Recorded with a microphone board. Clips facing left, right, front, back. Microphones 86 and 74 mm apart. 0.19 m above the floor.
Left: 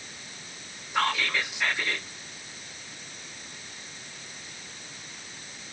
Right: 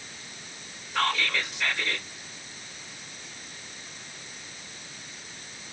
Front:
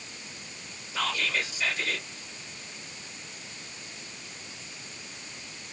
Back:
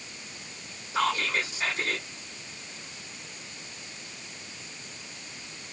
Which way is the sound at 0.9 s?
160° left.